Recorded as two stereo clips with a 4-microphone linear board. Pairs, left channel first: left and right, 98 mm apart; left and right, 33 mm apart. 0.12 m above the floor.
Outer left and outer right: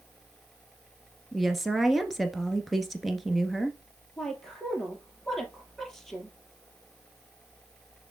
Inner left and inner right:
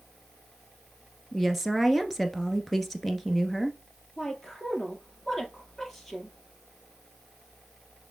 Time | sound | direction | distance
1.3 | a woman speaking | centre (ahead or behind) | 1.4 m
4.2 | a woman speaking | 5° left (ahead or behind) | 2.5 m